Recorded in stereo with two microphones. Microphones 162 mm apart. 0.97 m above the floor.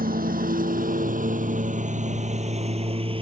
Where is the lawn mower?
65° right (ahead or behind); by 3.2 s 35° right (ahead or behind).